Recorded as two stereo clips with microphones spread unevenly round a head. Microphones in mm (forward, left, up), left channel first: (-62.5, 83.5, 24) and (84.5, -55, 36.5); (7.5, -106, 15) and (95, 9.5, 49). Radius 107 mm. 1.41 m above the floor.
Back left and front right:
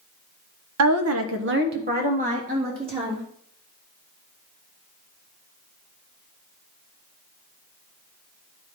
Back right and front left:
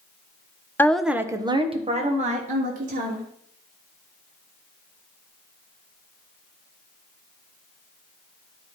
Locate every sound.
0.8 s a woman speaking: 55° right, 0.9 m; by 3.2 s 25° left, 2.5 m